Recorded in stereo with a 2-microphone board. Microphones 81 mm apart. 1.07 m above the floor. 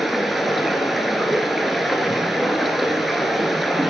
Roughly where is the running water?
Centre.